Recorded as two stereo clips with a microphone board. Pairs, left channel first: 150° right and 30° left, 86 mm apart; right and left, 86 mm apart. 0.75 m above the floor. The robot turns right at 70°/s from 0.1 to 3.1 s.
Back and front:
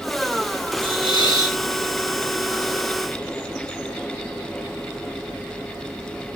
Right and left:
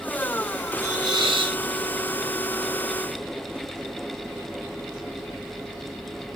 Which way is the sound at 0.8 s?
30° left.